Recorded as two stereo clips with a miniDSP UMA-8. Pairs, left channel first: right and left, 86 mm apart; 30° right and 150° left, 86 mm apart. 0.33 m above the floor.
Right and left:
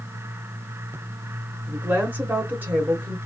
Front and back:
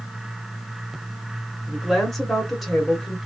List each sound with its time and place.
1.7 s a woman speaking: 55° left, 0.9 m